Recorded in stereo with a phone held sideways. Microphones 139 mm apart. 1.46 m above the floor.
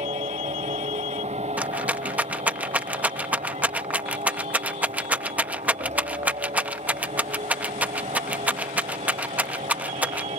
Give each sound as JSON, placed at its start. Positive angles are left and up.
{"t": 0.0, "sound": "a machine running", "side_deg": -50}
{"t": 1.6, "sound": "a rattle", "side_deg": -10}